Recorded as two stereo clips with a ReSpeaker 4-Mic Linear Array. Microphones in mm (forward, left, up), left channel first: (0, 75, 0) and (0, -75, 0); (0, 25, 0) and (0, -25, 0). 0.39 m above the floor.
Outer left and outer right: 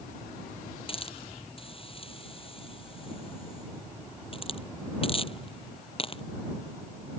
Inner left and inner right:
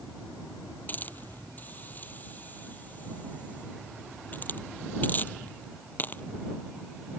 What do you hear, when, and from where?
0.9 s a hiss: 35° left (ahead or behind)